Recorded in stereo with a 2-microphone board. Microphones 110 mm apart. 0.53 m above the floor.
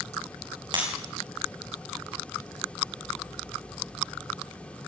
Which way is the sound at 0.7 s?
45° right (ahead or behind).